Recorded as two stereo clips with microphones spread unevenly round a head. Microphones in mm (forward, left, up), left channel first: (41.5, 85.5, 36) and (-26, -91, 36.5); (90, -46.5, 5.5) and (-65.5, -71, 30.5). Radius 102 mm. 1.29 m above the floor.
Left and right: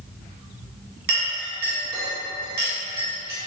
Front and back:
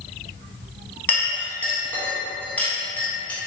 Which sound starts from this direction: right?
A clink, at 1.1 s.